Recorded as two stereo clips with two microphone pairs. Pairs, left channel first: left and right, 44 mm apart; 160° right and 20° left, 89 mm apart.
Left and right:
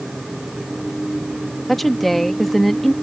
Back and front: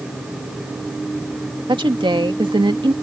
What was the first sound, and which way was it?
A woman speaking, 5° left.